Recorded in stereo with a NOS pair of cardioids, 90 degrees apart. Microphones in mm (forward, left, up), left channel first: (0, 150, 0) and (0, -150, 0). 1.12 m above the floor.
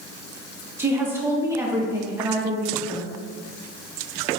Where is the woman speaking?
10° right, 1.0 m.